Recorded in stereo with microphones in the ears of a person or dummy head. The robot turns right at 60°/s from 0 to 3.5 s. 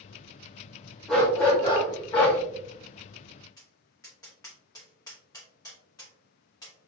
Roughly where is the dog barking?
Centre.